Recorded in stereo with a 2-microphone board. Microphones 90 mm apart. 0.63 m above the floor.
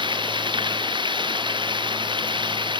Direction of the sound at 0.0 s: 60° right (ahead or behind).